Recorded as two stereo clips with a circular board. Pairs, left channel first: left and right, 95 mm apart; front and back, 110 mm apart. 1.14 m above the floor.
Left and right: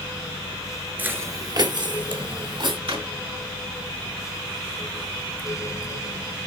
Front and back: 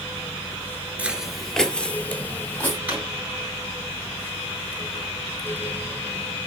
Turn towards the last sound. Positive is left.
turn(degrees=-105)